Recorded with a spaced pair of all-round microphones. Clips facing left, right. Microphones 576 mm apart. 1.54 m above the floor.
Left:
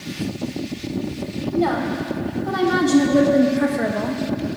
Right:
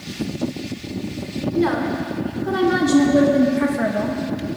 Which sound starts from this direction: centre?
A woman speaking, at 1.5 s.